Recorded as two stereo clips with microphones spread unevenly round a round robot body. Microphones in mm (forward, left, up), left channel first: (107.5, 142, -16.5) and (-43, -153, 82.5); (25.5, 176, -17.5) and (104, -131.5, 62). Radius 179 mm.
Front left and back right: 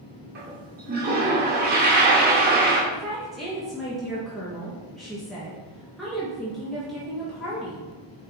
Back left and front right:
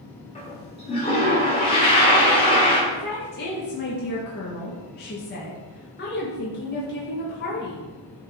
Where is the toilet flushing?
Straight behind, 1.8 m.